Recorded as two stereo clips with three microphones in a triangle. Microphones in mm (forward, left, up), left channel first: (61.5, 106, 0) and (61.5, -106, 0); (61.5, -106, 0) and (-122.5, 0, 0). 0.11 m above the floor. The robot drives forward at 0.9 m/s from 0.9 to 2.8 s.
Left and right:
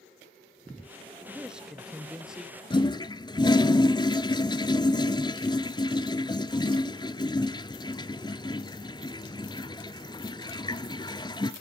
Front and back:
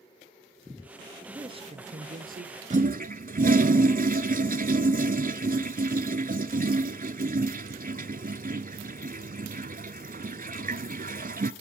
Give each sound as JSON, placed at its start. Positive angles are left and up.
{"t": 1.3, "sound": "a man speaking", "azimuth_deg": -170, "distance_m": 1.1}
{"t": 2.7, "sound": "a toilet flushing", "azimuth_deg": 140, "distance_m": 0.5}